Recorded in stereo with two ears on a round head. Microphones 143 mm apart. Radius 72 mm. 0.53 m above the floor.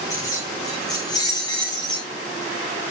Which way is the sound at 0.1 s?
20° left (ahead or behind).